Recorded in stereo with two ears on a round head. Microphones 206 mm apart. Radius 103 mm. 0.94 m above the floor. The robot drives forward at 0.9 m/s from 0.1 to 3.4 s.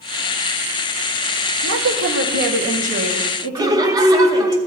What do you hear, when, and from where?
1.6 s a woman speaking: 55° right (ahead or behind), 1.2 m; by 4.5 s 30° right (ahead or behind), 2 m
3.5 s laughter: 15° right (ahead or behind), 0.8 m